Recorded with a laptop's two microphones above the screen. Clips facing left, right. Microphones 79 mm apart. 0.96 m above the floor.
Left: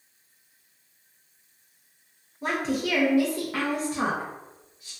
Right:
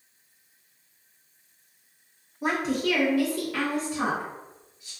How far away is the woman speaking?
About 0.6 m.